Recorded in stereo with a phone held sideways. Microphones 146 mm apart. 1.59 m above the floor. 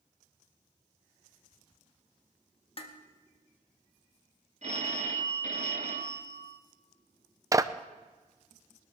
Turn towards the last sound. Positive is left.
turn(degrees=-25)  # may be behind; listen again after turning